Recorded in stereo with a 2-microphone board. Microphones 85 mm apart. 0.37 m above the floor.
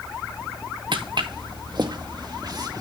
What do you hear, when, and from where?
0.9 s footsteps: 65° right (ahead or behind), 1.7 m; by 2.8 s 45° right (ahead or behind), 2.5 m